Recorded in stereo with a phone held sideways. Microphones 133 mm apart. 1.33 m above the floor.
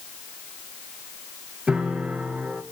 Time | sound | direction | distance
1.7 | a piano | 5° right (ahead or behind) | 1.6 m